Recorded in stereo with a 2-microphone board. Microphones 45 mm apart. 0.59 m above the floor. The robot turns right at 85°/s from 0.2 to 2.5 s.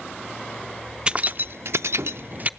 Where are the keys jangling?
20° right (ahead or behind), 0.5 m; by 2.5 s 30° right (ahead or behind), 0.5 m.